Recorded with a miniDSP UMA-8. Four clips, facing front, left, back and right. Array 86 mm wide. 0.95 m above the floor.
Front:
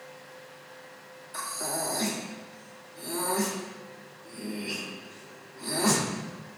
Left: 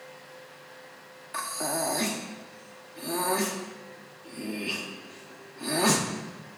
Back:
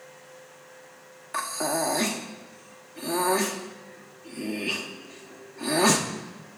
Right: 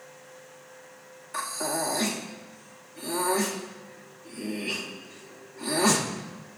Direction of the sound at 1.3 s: 170° left.